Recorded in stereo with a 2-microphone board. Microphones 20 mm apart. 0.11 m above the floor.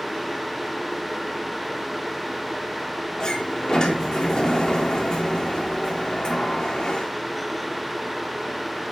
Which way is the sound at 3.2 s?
40° left (ahead or behind).